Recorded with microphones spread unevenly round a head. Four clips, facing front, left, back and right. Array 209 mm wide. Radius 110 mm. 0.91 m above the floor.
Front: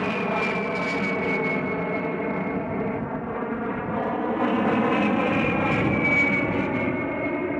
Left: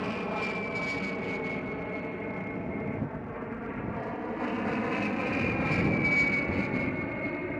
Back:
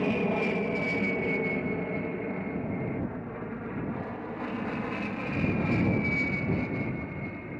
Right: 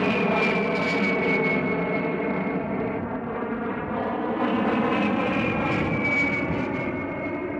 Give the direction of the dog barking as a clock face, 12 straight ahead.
I don't hear a dog barking.